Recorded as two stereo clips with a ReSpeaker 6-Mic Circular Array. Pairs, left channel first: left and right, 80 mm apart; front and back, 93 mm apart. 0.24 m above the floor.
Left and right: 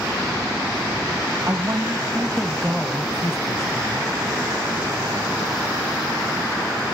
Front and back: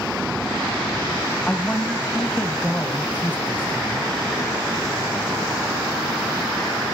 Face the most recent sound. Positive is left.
turn(degrees=70)